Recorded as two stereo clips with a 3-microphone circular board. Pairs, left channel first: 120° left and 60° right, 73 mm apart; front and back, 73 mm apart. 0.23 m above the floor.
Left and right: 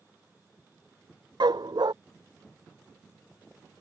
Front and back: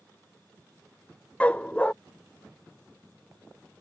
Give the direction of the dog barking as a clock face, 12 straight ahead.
2 o'clock.